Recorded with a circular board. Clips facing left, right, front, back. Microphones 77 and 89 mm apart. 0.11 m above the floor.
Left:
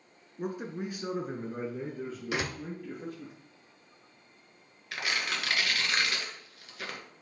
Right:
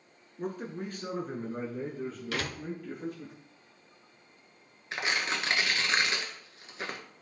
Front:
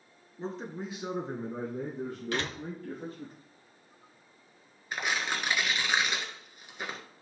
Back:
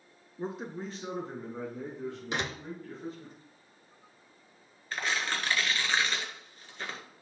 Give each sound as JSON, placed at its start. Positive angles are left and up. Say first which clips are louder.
{"t": 0.4, "sound": "a man speaking", "louder": "left 1 dB, even", "azimuth_deg": 145, "distance_m": 1.1}
{"t": 2.3, "sound": "a door slam", "louder": "left 3 dB, front 1 dB", "azimuth_deg": 135, "distance_m": 0.9}
{"t": 4.9, "sound": "tearing paper", "louder": "right 2 dB, even", "azimuth_deg": -65, "distance_m": 1.4}